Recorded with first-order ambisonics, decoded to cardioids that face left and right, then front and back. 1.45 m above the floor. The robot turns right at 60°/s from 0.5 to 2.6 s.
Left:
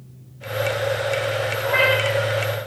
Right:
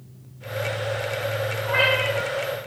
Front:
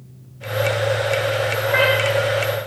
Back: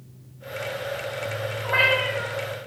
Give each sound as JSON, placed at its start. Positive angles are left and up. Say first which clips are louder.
{"t": 1.6, "sound": "a cat meowing", "louder": "left 2 dB, front 2 dB", "azimuth_deg": 130, "distance_m": 1.5}